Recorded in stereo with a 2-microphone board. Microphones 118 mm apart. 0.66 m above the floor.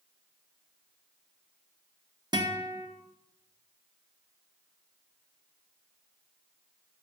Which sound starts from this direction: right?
A guitar, at 2.3 s.